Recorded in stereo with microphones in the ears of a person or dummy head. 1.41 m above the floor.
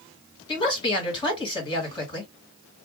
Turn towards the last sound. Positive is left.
turn(degrees=25)  # may be behind; listen again after turning